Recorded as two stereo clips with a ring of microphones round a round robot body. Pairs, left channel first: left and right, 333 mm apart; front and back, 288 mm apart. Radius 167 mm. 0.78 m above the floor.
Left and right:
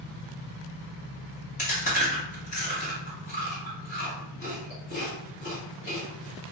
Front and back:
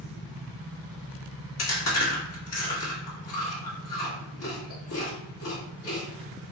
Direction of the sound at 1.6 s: 25° left.